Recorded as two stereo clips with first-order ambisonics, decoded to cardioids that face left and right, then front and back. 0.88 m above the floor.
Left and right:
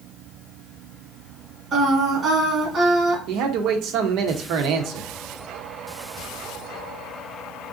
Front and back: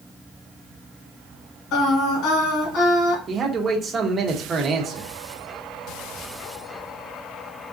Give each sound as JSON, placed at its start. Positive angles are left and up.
{"t": 1.7, "sound": "singing", "azimuth_deg": -20, "distance_m": 1.4}
{"t": 3.3, "sound": "a man speaking", "azimuth_deg": -110, "distance_m": 0.7}